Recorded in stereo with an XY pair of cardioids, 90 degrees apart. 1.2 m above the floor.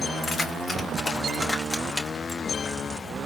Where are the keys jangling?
40° left, 1.3 m; by 2.4 s 5° right, 1.6 m.